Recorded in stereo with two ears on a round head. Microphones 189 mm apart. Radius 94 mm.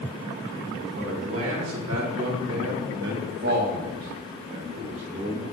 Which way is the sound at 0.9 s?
55° right (ahead or behind).